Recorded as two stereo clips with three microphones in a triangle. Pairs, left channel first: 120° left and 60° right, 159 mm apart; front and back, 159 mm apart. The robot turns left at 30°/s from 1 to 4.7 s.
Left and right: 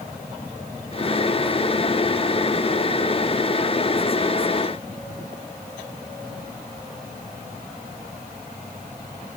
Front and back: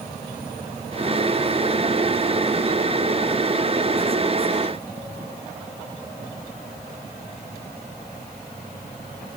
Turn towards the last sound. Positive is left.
No sound to turn to.